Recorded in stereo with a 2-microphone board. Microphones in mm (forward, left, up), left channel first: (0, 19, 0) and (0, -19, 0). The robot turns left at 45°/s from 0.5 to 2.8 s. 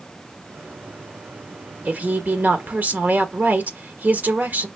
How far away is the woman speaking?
About 1.3 m.